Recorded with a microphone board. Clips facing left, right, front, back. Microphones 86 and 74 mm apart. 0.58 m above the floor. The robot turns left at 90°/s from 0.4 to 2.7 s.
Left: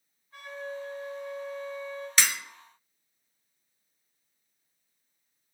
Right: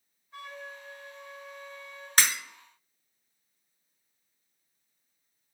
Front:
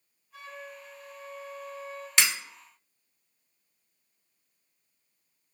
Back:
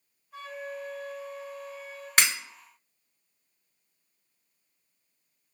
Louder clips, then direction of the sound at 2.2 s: Right 1 dB, back 2 dB; 135° right.